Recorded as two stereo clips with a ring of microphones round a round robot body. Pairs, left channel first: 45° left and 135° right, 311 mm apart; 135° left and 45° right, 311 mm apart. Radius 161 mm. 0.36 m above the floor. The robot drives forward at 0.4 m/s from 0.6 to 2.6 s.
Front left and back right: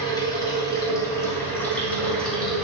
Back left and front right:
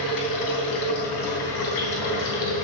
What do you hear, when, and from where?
0.0 s running water: 125° left, 3 m; by 2.6 s 135° left, 3.5 m